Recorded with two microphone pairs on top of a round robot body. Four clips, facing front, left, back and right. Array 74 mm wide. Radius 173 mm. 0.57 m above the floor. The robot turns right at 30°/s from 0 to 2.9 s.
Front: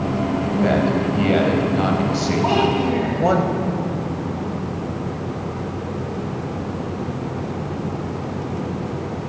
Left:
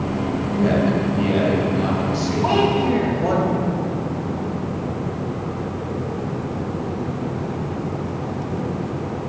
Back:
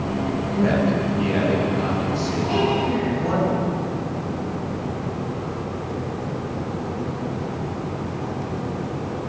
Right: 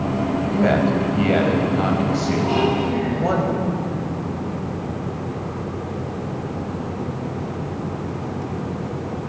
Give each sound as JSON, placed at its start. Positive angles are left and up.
{"t": 0.5, "sound": "a man speaking", "azimuth_deg": -85, "distance_m": 5.0}
{"t": 2.4, "sound": "a child speaking", "azimuth_deg": 45, "distance_m": 5.0}